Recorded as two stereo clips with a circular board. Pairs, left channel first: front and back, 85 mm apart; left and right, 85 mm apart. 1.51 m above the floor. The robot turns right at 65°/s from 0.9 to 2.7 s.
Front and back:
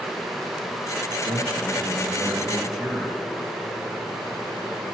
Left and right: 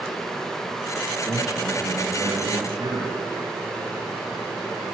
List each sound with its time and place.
1.2 s a man speaking: 175° left, 1.8 m; by 3.2 s 95° right, 1.8 m